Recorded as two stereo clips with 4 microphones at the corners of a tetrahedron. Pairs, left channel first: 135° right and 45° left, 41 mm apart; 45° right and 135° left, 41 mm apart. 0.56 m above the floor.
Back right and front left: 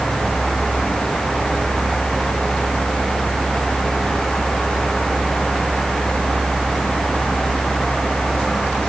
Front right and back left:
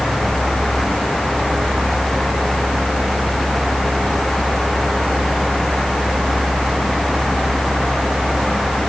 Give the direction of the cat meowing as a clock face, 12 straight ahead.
I don't hear a cat meowing.